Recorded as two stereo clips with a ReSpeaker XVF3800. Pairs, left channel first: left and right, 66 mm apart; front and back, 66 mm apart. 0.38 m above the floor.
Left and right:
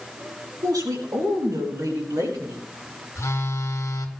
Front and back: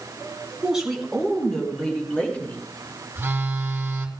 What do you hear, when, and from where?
0.6 s a woman speaking: 100° right, 4 m; by 2.6 s 65° right, 5 m
3.1 s a phone buzzing: 125° left, 1.9 m